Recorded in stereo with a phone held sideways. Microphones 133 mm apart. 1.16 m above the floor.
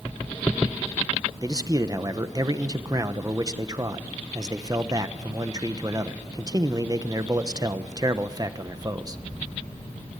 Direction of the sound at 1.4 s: 30° right (ahead or behind).